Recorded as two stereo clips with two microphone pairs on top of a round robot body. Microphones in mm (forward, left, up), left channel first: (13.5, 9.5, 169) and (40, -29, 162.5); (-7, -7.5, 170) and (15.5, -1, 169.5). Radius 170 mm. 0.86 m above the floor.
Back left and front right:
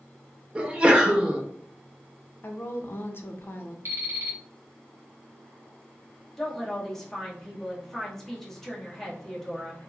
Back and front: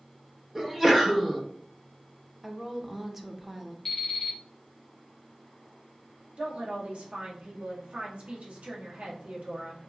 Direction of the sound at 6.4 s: 40° left.